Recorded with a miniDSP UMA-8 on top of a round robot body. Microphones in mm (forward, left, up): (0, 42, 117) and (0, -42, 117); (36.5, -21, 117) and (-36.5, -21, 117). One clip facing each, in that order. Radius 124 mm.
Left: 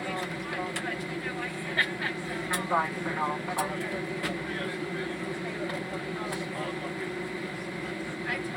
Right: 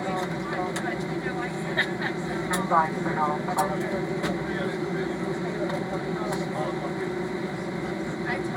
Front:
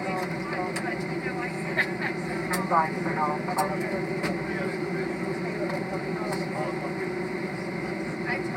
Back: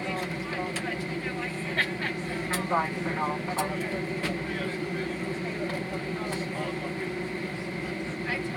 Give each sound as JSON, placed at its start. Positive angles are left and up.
{"t": 0.0, "sound": "an aircraft", "azimuth_deg": -50}